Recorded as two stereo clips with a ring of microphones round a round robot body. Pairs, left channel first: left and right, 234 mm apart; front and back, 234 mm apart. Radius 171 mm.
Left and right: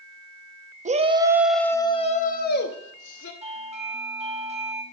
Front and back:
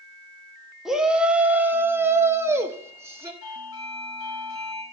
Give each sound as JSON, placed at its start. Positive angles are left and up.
{"t": 0.8, "sound": "a shout", "azimuth_deg": -95, "distance_m": 0.9}
{"t": 3.4, "sound": "a doorbell", "azimuth_deg": -30, "distance_m": 3.5}